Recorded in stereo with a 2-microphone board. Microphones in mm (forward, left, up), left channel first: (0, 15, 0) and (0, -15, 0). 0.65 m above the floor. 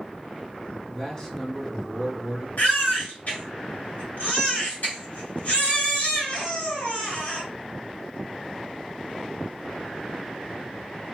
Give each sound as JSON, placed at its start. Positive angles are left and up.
{"t": 0.9, "sound": "a man speaking", "side_deg": 25, "distance_m": 1.0}
{"t": 2.6, "sound": "a baby crying", "side_deg": 75, "distance_m": 1.9}